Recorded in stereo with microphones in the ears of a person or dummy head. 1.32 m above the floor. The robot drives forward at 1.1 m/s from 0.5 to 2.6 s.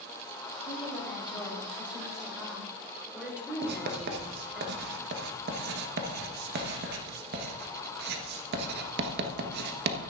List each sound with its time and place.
0.7 s a woman speaking: centre (ahead or behind), 5 m
3.6 s writing: 55° right (ahead or behind), 1.2 m